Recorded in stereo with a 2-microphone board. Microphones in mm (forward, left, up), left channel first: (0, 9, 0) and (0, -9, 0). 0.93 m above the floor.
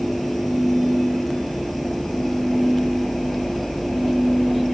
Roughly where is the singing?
No singing in this recording.